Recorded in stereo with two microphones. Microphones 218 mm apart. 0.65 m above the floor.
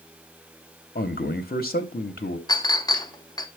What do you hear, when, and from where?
0.9 s a man speaking: 45° left (ahead or behind), 0.9 m
2.5 s a clink: 20° left (ahead or behind), 0.7 m